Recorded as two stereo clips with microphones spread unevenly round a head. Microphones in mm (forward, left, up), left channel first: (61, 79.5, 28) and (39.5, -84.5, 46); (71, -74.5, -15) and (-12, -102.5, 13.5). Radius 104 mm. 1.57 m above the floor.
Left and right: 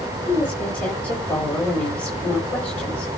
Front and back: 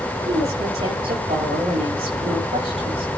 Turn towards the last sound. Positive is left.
turn(degrees=165)